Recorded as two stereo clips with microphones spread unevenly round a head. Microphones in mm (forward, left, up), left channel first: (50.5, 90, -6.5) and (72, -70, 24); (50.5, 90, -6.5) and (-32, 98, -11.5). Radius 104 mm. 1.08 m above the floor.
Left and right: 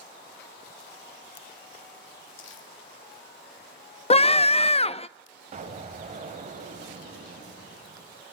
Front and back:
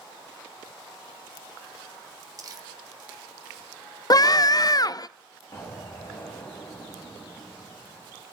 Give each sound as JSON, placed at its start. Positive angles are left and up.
{"t": 2.4, "sound": "crumpling", "azimuth_deg": 130, "distance_m": 1.6}
{"t": 4.1, "sound": "a scream", "azimuth_deg": 45, "distance_m": 0.5}
{"t": 5.5, "sound": "an explosion", "azimuth_deg": -65, "distance_m": 1.4}